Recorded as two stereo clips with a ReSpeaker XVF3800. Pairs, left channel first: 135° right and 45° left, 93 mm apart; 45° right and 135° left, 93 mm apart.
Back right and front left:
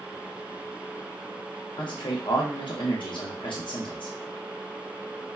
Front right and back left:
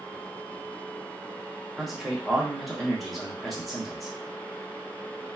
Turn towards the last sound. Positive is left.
turn(degrees=-135)